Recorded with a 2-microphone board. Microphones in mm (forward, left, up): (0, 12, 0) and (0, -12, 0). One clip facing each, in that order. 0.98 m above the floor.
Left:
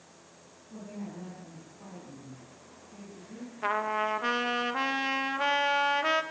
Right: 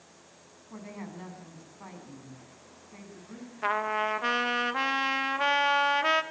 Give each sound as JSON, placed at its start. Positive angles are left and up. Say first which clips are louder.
{"t": 0.7, "sound": "a woman speaking", "louder": "even", "side_deg": -85, "distance_m": 7.0}
{"t": 3.6, "sound": "a trumpet", "louder": "right 1 dB", "side_deg": -15, "distance_m": 1.3}